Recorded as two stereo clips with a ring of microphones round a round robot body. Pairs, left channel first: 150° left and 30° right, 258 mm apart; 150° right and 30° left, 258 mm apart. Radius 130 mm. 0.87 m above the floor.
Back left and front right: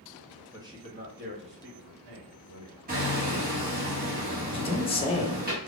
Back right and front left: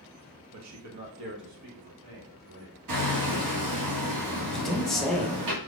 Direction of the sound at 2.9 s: 25° left.